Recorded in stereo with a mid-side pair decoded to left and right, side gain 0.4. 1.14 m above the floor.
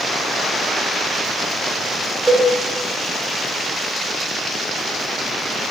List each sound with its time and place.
2.3 s a cowbell: 5° left, 0.8 m